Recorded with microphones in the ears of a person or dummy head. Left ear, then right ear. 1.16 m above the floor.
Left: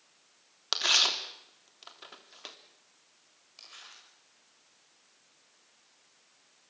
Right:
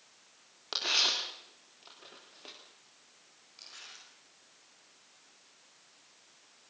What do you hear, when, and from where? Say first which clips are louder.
0.7 s tearing paper: left 3 dB; 55° left (ahead or behind), 3 m
3.6 s crumpling: right 1 dB; 35° left (ahead or behind), 7 m